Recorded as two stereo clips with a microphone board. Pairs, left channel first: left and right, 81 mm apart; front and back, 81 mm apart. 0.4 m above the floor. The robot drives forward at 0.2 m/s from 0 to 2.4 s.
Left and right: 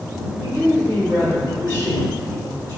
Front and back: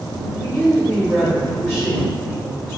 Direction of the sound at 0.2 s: 65° right.